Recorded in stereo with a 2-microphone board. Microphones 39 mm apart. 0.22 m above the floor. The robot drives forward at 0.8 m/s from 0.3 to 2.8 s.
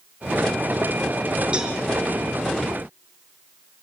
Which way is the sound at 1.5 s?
25° right (ahead or behind).